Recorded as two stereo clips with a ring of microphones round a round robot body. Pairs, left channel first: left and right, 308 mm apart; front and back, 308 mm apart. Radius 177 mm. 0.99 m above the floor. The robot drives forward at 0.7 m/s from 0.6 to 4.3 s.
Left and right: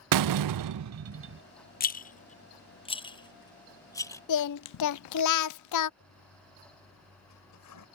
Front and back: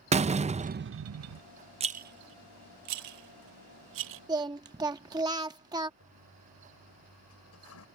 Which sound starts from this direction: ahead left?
A toilet flushing, at 6.0 s.